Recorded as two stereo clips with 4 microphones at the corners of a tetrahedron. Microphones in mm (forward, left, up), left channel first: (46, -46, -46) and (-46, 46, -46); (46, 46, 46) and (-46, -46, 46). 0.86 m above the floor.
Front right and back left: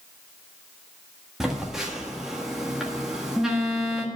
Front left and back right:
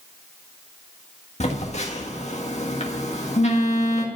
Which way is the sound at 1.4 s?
50° left.